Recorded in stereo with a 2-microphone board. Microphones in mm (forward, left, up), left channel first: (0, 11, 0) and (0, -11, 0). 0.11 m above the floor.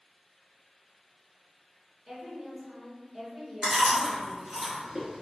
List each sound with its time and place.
2.1 s a woman speaking: 35° right (ahead or behind), 1.7 m
3.6 s chewing: 30° right (ahead or behind), 1.3 m